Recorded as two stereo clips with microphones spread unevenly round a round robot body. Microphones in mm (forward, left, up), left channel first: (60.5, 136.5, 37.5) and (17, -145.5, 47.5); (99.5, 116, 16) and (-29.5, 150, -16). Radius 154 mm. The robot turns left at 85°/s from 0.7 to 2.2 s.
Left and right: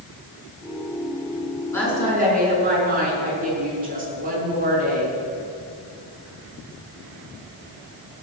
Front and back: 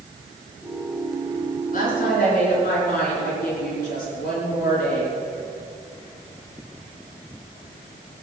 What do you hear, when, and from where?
1.7 s a woman speaking: 5° left, 5.5 m; by 5.2 s 40° right, 5.5 m